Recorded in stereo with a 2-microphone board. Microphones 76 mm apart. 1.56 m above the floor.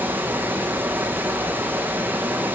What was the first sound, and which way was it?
Running water, 25° right (ahead or behind).